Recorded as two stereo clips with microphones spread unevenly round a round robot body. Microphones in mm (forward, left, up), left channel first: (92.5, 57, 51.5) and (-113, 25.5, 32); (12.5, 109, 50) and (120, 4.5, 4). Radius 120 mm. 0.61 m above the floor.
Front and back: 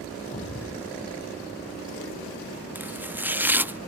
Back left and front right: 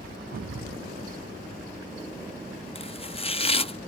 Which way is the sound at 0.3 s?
65° right.